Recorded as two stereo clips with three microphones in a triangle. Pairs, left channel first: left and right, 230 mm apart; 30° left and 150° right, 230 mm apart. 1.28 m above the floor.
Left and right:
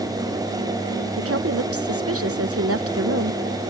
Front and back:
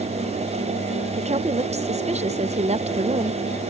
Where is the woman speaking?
85° right.